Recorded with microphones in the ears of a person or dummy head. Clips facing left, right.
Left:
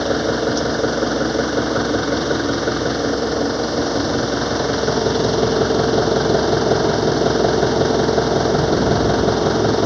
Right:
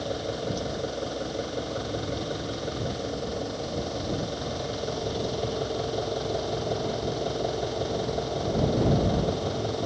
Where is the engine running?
80° left.